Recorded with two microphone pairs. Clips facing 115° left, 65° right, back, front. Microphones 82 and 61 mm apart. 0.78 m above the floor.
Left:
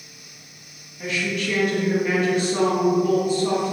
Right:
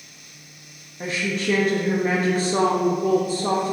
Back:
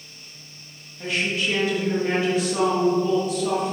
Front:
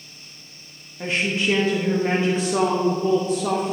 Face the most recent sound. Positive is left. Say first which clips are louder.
# right 1 dB, front 2 dB
turn(degrees=-40)